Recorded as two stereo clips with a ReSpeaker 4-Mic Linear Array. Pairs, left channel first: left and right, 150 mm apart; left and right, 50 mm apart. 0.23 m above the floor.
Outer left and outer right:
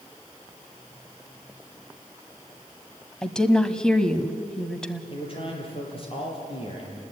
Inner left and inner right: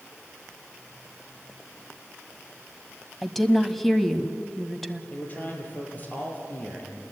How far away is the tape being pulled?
I don't hear tape being pulled.